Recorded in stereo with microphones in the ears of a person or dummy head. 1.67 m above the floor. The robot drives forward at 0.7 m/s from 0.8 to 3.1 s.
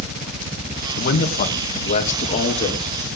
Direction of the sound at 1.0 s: 50° left (ahead or behind).